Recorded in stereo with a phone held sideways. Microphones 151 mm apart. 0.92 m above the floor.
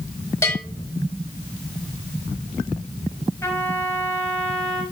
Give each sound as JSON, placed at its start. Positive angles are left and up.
{"t": 0.4, "sound": "a bell", "side_deg": 15, "distance_m": 4.0}
{"t": 3.4, "sound": "a trumpet", "side_deg": 15, "distance_m": 3.5}